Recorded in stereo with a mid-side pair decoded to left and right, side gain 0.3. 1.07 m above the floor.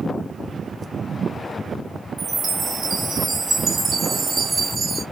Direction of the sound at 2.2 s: 70° right.